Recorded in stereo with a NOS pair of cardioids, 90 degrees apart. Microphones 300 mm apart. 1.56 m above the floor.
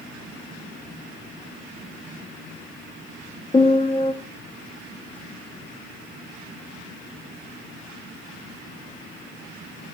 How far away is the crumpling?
I don't hear crumpling.